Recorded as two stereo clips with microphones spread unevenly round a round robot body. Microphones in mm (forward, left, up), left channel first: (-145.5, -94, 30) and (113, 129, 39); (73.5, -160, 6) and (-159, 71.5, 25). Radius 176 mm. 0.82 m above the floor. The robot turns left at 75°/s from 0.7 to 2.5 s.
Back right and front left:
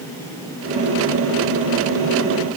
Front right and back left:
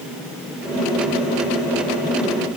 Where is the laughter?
I don't hear laughter.